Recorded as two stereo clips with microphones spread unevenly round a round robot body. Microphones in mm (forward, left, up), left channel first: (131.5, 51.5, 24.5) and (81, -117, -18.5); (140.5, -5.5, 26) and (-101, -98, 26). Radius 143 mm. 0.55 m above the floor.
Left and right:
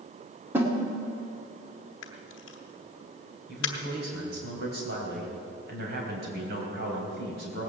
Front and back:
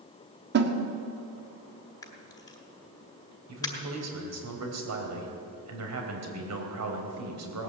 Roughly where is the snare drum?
Behind.